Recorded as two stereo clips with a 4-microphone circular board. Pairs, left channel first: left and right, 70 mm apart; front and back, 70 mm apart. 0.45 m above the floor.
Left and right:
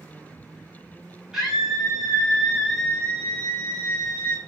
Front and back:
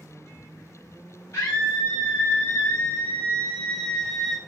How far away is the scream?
About 2.0 m.